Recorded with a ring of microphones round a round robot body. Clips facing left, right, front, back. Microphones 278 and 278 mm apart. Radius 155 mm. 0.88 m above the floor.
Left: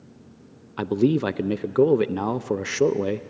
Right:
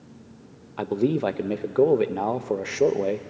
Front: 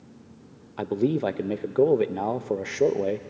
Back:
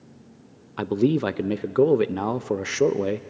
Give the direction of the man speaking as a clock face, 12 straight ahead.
8 o'clock.